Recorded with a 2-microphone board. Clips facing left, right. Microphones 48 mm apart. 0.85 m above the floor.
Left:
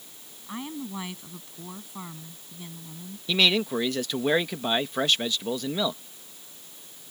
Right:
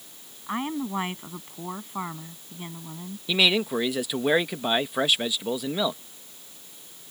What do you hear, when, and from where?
0.5 s a woman speaking: 35° right (ahead or behind)
3.3 s a man speaking: 10° right (ahead or behind)